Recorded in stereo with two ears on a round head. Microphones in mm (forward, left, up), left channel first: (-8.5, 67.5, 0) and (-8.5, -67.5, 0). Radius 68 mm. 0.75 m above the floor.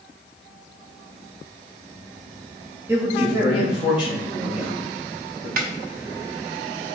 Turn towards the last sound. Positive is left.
turn(degrees=-65)  # may be behind; listen again after turning